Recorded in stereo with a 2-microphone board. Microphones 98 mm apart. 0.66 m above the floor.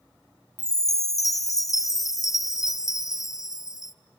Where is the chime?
35° left (ahead or behind), 0.5 m.